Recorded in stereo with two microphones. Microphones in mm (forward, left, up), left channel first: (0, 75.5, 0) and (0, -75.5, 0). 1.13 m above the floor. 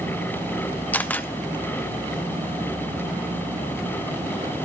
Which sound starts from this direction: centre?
A camera shutter, at 0.9 s.